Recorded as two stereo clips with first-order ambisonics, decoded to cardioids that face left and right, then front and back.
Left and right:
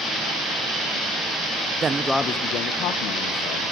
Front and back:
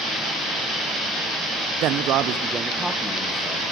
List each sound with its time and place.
1.8 s a man speaking: 150° right, 0.8 m; by 3.6 s 85° left, 1.9 m